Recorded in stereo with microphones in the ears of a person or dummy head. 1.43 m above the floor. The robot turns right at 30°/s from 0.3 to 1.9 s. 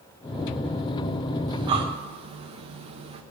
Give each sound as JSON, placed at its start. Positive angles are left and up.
{"t": 1.5, "sound": "breathing", "side_deg": -15, "distance_m": 0.8}